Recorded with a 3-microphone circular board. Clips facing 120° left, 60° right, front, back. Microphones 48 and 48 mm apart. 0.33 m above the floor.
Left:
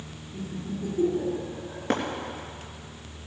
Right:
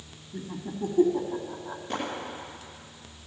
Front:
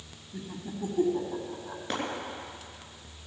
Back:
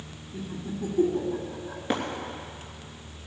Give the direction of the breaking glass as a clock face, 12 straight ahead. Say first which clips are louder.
Left 7 dB, back 5 dB; 9 o'clock.